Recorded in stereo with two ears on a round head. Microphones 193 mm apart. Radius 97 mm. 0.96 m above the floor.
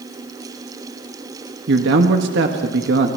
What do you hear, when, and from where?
1.7 s a man speaking: 55° right (ahead or behind), 1.6 m